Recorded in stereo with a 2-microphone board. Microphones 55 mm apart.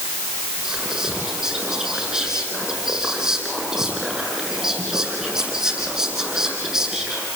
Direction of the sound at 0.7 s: 10° right (ahead or behind).